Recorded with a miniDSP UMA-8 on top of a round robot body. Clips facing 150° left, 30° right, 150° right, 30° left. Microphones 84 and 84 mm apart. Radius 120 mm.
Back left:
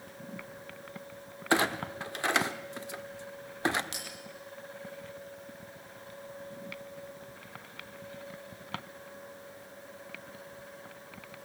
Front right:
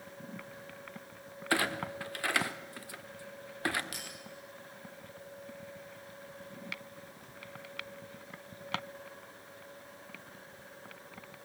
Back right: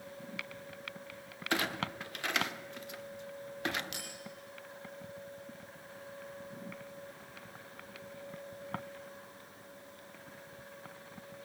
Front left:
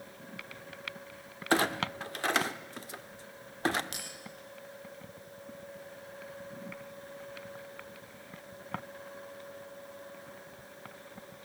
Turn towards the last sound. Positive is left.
turn(degrees=85)